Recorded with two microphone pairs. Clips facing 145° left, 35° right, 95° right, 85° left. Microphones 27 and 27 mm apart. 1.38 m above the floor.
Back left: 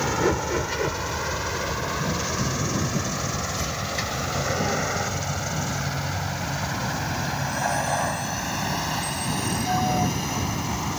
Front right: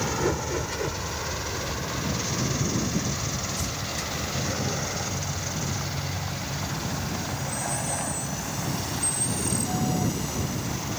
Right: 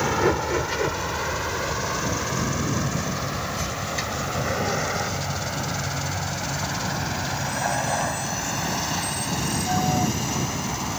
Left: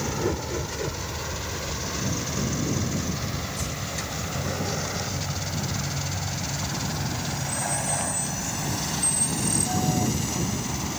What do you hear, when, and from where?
0.0 s a vehicle: 145° right; by 11.0 s 165° right